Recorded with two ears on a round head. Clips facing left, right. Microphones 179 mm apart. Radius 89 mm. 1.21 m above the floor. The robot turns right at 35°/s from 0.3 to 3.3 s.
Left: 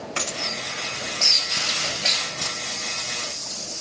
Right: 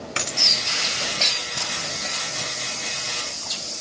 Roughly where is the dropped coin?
Right.